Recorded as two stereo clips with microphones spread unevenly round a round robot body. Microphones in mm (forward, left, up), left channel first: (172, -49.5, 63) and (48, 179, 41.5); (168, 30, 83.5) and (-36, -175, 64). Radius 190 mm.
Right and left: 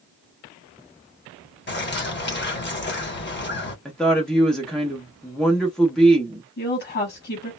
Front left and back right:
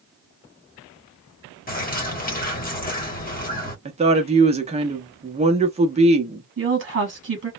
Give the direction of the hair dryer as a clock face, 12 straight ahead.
No hair dryer in this recording.